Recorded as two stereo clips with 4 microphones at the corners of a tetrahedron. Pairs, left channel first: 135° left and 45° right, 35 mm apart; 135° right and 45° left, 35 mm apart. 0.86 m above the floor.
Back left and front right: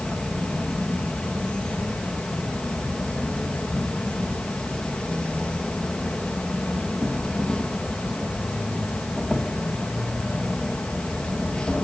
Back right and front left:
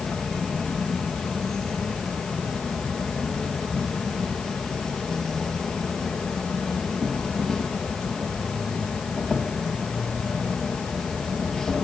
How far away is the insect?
About 1.5 m.